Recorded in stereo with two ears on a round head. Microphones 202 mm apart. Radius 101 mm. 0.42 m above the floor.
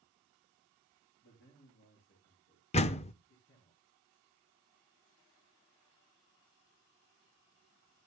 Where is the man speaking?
55° left (ahead or behind), 7.5 m; by 3.7 s 65° left (ahead or behind), 7.5 m.